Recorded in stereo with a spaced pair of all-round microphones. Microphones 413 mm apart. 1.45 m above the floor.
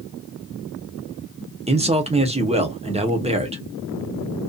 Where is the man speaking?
15° right (ahead or behind), 0.7 m.